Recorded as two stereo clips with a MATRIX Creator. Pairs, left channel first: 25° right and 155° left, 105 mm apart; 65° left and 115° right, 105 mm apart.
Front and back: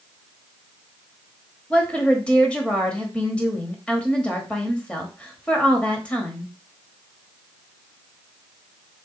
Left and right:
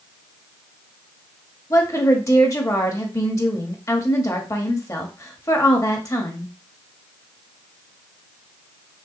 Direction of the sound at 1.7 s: 45° left.